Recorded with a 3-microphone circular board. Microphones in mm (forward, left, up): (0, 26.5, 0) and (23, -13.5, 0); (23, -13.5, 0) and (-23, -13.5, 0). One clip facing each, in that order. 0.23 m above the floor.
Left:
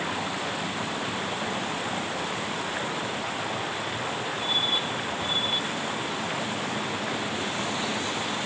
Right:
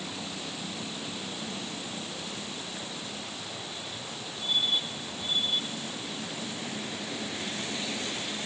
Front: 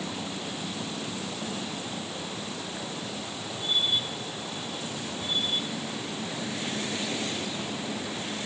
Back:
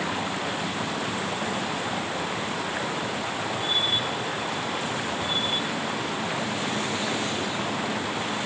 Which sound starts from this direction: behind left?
Running water, at 0.0 s.